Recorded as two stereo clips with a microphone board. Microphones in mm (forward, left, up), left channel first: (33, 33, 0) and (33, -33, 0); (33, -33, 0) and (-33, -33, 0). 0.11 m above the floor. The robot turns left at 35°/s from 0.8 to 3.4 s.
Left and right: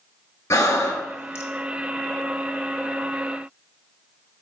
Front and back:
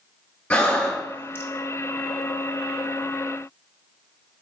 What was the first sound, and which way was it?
Breathing, 65° left.